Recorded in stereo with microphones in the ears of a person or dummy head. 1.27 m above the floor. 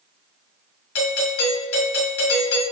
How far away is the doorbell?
About 1.6 m.